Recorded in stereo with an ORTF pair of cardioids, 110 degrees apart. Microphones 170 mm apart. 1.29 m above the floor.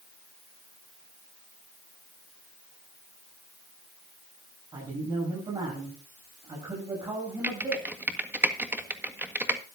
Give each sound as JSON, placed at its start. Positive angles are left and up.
{"t": 4.7, "sound": "a man speaking", "azimuth_deg": -25, "distance_m": 8.5}
{"t": 7.4, "sound": "typing on a keyboard", "azimuth_deg": -10, "distance_m": 1.5}